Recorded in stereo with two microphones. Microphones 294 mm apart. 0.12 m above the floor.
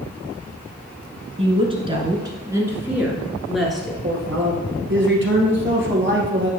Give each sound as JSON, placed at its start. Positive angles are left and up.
{"t": 1.4, "sound": "a woman speaking", "side_deg": -20, "distance_m": 1.4}
{"t": 4.0, "sound": "a man speaking", "side_deg": -40, "distance_m": 1.8}